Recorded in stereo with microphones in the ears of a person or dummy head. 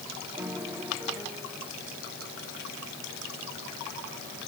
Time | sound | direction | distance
0.4 | a piano | 15° right (ahead or behind) | ?